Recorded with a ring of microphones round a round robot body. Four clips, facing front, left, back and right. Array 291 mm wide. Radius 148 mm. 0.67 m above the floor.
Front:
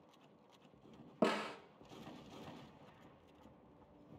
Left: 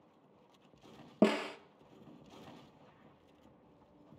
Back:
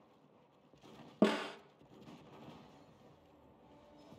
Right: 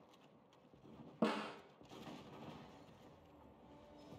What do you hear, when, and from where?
1.2 s a snare drum: 120° left, 0.6 m